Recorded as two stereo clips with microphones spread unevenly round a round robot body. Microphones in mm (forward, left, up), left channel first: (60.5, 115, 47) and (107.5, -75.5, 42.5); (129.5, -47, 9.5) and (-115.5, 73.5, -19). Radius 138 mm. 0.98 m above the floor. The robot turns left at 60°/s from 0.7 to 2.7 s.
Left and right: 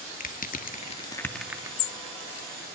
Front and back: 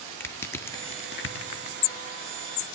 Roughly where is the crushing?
Ahead left.